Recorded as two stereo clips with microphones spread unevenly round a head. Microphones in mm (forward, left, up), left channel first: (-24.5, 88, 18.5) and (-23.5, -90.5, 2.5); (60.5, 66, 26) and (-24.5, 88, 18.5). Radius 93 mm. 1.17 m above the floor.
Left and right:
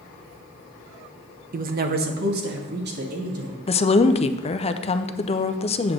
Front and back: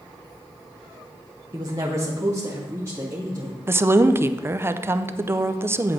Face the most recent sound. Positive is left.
turn(degrees=130)